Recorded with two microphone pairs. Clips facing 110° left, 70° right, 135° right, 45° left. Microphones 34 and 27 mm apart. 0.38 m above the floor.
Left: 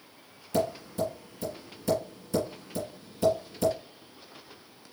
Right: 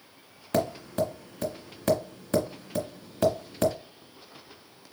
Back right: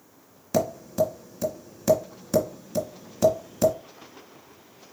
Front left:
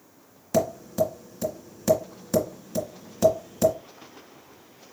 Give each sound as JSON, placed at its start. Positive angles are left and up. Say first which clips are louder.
{"t": 0.5, "sound": "tapping", "louder": "right 2 dB, even", "azimuth_deg": -45, "distance_m": 2.0}